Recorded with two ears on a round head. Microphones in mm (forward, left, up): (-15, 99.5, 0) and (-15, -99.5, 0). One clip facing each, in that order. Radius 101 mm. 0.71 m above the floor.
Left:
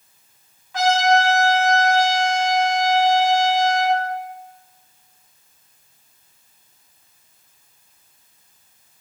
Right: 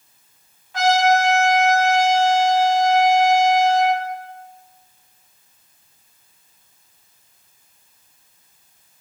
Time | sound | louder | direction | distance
0.7 | a trumpet | right 1 dB | 65° left (ahead or behind) | 3 m